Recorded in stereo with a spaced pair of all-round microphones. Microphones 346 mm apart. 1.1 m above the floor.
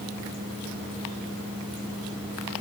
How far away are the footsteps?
I don't hear footsteps.